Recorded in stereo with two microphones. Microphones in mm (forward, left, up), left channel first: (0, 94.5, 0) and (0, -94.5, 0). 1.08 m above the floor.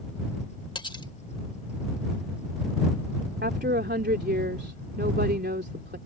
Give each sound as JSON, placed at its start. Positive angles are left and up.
{"t": 0.8, "sound": "cutlery clinking", "side_deg": 25}
{"t": 3.4, "sound": "a woman speaking", "side_deg": -65}